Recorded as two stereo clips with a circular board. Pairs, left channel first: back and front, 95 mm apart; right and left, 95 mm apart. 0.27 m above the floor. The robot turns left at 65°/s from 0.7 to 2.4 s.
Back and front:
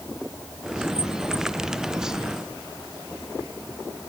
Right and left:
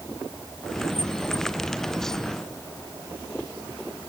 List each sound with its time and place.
Only background noise.